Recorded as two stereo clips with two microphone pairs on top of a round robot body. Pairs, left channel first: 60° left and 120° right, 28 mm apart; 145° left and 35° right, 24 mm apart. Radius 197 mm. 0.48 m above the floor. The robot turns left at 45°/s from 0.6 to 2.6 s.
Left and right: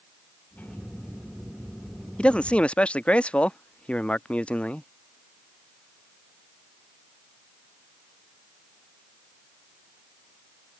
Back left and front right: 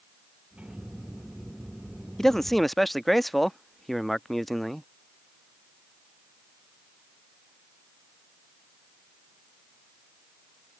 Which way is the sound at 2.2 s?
85° left.